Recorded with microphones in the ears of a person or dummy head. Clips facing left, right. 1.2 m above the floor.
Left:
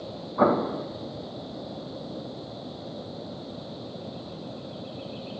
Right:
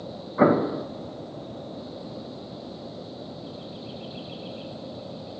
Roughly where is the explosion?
Right.